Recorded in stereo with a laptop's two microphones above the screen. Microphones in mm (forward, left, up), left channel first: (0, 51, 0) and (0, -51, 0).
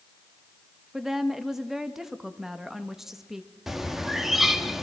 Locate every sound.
0.9 s a woman speaking: 5° right (ahead or behind), 1.1 m
3.7 s a bird: 5° right (ahead or behind), 1.0 m